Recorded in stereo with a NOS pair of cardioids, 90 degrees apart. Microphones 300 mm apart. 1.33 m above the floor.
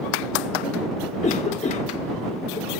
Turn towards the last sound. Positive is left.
turn(degrees=20)